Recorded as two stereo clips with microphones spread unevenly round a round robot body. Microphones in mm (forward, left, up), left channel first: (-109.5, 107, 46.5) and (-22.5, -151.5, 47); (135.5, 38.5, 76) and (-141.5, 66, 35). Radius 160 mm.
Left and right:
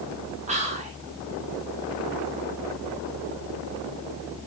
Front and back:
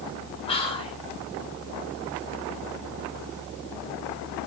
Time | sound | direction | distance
0.5 | whispering | 70° right | 0.8 m